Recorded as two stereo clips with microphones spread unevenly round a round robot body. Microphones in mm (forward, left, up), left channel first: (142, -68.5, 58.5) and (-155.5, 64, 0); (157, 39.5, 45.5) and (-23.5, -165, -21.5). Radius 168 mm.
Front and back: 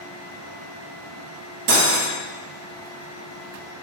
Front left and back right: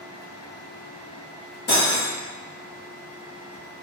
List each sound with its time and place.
1.7 s cutlery clinking: 110° left, 0.6 m